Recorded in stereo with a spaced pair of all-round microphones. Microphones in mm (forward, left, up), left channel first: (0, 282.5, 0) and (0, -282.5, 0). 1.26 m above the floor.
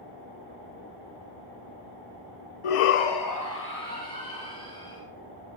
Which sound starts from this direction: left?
A shout, at 2.6 s.